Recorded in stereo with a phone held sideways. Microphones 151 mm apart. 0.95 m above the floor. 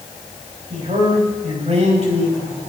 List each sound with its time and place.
0.7 s a man speaking: 45° right (ahead or behind), 5 m